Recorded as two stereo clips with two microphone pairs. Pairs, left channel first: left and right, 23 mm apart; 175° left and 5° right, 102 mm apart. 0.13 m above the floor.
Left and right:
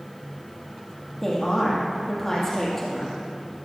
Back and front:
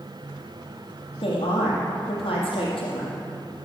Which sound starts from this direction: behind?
A woman speaking, at 1.2 s.